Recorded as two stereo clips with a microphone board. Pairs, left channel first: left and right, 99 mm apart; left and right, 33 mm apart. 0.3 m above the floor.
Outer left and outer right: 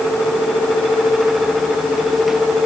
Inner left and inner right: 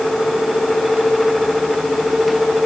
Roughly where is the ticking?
I don't hear ticking.